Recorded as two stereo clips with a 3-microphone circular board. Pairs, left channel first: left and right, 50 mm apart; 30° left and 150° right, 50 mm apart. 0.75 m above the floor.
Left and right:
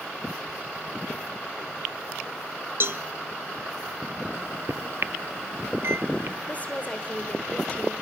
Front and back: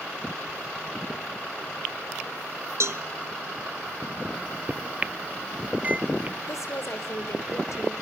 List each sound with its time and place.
2.8 s a cowbell: 130° right, 1.1 m
4.3 s a microwave: 95° right, 0.7 m
6.5 s a woman speaking: 30° left, 3 m